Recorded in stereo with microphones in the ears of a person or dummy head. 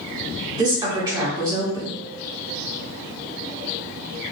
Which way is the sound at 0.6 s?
25° right (ahead or behind).